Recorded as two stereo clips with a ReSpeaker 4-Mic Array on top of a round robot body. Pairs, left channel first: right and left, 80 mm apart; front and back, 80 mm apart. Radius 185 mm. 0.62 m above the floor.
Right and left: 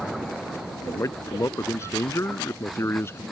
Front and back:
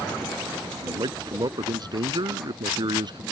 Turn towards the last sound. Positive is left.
turn(degrees=-150)